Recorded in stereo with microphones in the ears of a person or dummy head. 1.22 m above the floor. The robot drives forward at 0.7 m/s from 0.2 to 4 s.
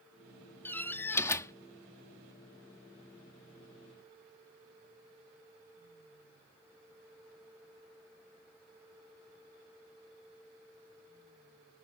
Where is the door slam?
10° left (ahead or behind); by 1.5 s 20° left (ahead or behind).